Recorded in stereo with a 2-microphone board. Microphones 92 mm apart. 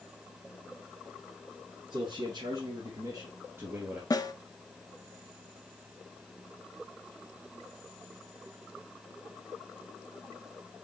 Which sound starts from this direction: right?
A man speaking, at 1.9 s.